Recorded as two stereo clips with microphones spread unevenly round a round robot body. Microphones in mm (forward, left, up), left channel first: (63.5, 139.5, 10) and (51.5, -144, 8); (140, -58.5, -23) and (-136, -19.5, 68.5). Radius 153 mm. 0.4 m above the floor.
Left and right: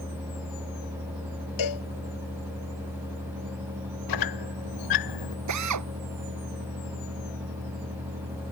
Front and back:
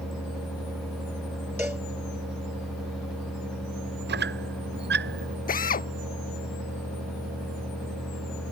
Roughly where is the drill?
Right.